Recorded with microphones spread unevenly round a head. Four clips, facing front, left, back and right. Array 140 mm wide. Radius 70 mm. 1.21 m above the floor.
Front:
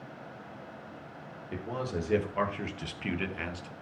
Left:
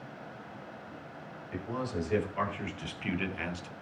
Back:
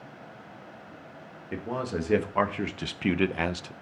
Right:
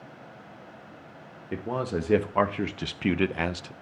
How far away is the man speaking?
About 1.6 m.